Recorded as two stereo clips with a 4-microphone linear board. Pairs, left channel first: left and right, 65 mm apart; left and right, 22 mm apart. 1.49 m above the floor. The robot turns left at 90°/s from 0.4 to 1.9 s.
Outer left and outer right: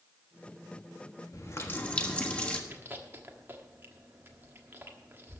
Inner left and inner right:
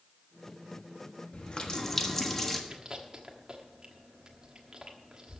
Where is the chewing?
35° right (ahead or behind), 1.4 m.